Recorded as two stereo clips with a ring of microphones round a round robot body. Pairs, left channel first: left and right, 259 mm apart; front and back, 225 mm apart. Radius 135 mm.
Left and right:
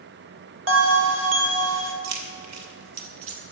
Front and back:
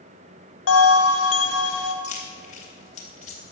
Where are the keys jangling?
65° right, 2 m.